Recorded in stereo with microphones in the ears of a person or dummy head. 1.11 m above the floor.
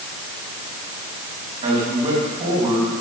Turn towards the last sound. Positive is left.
turn(degrees=-35)  # may be behind; listen again after turning